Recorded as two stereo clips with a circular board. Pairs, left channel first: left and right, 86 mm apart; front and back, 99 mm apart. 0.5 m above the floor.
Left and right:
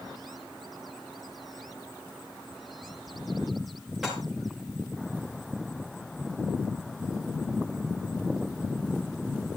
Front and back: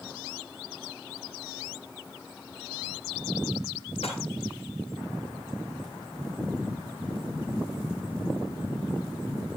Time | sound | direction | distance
4.0 | dishes clattering | 5° right | 6 m